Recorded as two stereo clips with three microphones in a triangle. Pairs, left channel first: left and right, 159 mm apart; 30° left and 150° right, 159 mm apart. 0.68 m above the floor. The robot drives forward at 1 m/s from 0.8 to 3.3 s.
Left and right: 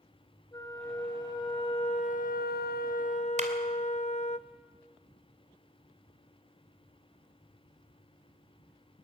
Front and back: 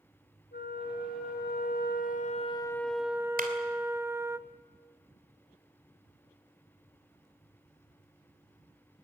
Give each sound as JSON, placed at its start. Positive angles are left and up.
{"t": 0.5, "sound": "a flute", "azimuth_deg": 20, "distance_m": 1.9}
{"t": 3.4, "sound": "a clap", "azimuth_deg": -130, "distance_m": 2.5}